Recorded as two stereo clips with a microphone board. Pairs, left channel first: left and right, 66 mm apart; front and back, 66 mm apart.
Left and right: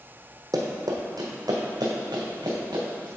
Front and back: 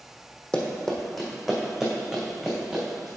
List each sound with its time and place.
0.5 s running footsteps: 75° right, 1.3 m; by 3.1 s 100° right, 3 m